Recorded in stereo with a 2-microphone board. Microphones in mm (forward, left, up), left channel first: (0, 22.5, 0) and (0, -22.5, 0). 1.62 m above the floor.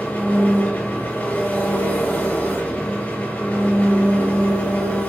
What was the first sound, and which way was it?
An engine running, 40° left (ahead or behind).